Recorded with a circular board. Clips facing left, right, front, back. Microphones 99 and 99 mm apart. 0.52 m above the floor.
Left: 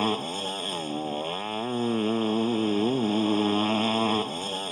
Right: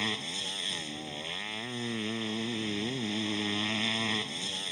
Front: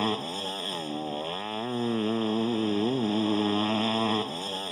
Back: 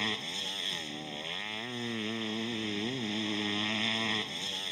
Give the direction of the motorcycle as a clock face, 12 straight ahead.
10 o'clock.